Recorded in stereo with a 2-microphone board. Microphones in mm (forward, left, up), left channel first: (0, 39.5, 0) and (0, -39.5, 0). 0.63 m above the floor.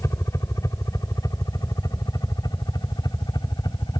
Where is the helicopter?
40° left (ahead or behind); by 4.0 s 60° left (ahead or behind).